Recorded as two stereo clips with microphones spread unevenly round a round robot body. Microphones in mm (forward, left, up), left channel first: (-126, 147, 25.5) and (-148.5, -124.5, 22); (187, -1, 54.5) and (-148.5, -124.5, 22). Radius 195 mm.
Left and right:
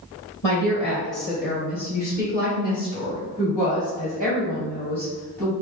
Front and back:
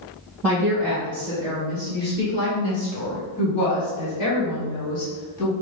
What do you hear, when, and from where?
0.4 s a woman speaking: 110° left, 1.8 m; by 5.5 s straight ahead, 2.5 m